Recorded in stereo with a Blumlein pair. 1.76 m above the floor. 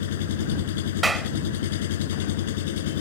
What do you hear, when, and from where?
0.0 s an engine running: 55° left
1.0 s a clap: 10° right